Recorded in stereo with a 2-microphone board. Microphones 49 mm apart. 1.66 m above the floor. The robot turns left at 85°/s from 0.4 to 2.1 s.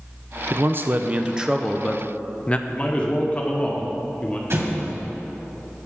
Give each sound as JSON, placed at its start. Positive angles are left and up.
{"t": 0.5, "sound": "a man speaking", "azimuth_deg": -85, "distance_m": 0.6}
{"t": 2.7, "sound": "a man speaking", "side_deg": 25, "distance_m": 1.6}
{"t": 4.5, "sound": "an explosion", "side_deg": -55, "distance_m": 2.5}